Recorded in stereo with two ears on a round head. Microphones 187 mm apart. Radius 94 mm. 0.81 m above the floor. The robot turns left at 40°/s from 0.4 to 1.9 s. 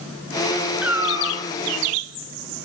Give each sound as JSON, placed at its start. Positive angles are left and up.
{"t": 0.8, "sound": "a cat meowing", "side_deg": -5, "distance_m": 1.1}